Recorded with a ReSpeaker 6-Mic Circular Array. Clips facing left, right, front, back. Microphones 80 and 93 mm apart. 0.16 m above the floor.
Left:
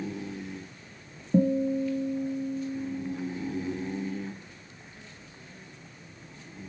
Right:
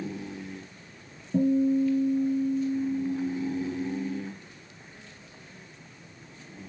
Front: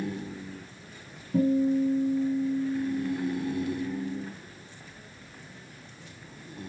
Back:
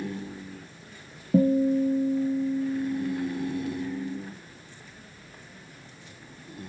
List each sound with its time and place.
1.3 s a guitar: 145° left, 0.6 m